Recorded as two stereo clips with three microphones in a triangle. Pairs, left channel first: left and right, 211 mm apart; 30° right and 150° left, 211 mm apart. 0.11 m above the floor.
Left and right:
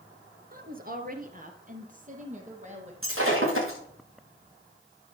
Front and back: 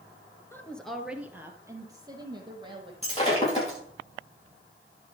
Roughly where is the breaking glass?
Right.